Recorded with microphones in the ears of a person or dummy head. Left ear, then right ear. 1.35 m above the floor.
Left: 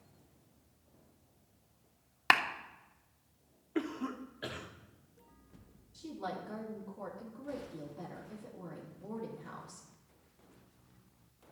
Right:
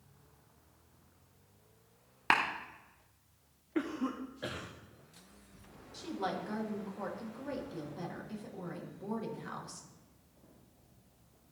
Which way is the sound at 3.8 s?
10° left (ahead or behind).